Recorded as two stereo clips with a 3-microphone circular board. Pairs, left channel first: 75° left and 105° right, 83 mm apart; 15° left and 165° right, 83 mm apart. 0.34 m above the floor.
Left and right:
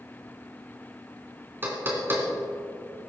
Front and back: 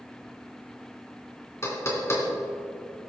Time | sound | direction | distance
1.6 | knocking | 40° right | 2.5 m